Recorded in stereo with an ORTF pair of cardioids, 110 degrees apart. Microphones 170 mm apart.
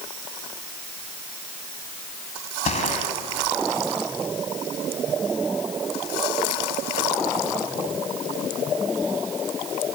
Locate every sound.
2.6 s a gunshot: 45° left, 3 m